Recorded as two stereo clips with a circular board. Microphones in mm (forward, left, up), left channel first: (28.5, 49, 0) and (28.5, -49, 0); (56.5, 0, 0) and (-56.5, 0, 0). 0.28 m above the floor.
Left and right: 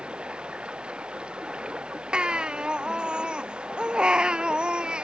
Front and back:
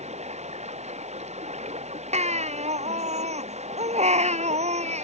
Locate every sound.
0.0 s running water: 170° right
2.1 s a baby crying: 170° right